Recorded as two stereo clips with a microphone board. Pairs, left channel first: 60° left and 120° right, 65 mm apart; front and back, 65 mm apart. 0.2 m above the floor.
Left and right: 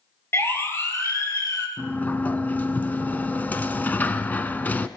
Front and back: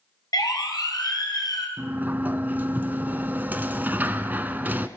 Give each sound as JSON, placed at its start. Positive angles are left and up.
{"t": 0.3, "sound": "a siren", "azimuth_deg": 10, "distance_m": 4.0}
{"t": 1.8, "sound": "a sliding door", "azimuth_deg": 120, "distance_m": 1.2}